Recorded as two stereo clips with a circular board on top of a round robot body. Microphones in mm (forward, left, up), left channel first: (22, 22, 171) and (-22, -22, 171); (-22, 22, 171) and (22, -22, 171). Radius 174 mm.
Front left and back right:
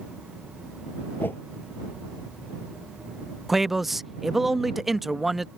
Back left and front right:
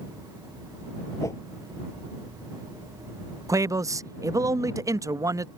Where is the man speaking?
45° right.